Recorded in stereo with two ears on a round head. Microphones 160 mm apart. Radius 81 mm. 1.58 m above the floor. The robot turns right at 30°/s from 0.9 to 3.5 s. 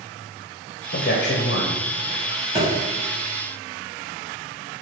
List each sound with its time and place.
0.9 s a man speaking: 55° left (ahead or behind), 0.5 m; by 1.8 s 60° left (ahead or behind), 0.5 m
2.5 s a thud: 35° right (ahead or behind), 1.8 m